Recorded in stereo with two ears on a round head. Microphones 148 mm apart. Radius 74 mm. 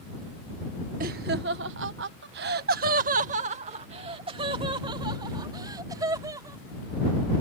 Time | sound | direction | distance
1.0 | laughter | 55° right (ahead or behind) | ?